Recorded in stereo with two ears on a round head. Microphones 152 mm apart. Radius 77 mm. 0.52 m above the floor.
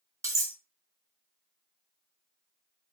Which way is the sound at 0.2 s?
20° right (ahead or behind).